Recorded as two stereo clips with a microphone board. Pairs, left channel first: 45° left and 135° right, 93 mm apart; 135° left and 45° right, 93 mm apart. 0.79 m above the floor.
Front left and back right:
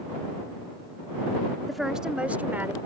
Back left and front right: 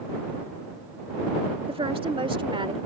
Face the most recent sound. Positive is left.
turn(degrees=-70)